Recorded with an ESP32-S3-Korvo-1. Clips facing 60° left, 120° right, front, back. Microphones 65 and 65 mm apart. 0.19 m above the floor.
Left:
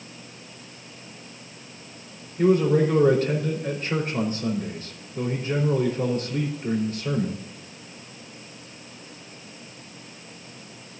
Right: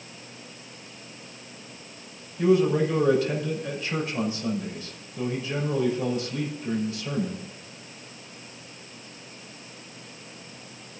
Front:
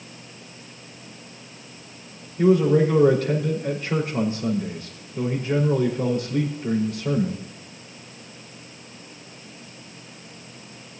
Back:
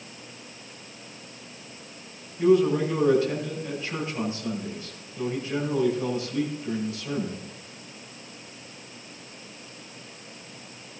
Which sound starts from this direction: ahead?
A man speaking, at 2.4 s.